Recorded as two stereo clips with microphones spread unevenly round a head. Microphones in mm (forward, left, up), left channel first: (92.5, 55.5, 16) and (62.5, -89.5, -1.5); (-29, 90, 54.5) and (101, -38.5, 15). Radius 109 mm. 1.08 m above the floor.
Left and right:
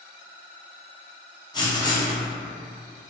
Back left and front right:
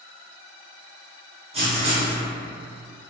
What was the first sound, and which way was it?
Writing, 15° left.